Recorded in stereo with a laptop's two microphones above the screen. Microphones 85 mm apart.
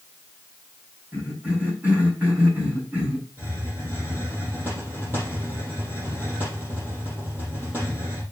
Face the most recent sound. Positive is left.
turn(degrees=-25)  # may be behind; listen again after turning